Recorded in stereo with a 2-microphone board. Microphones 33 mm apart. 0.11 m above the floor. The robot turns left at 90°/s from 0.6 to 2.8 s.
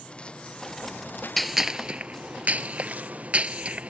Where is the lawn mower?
145° left; by 3.9 s 50° right.